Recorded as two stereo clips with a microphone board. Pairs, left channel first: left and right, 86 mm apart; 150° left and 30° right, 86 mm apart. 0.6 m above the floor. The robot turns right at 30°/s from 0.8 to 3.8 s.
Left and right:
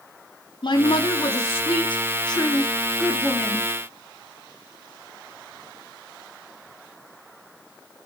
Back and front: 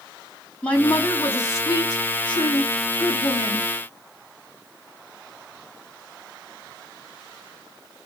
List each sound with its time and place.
0.6 s a woman speaking: 75° left, 4 m; by 3.7 s 160° left, 4 m